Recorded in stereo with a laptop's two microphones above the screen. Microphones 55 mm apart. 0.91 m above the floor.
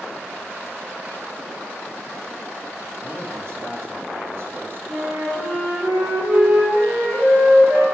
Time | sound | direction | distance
3.0 | a man speaking | 65° right (ahead or behind) | 2 m
4.9 | a flute | 40° right (ahead or behind) | 2.5 m